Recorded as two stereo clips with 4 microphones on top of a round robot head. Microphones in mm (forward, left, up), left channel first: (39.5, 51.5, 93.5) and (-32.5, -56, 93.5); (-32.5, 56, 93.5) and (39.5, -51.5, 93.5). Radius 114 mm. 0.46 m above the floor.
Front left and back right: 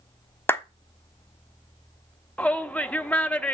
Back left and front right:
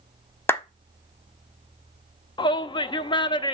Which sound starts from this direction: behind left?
A shout, at 2.4 s.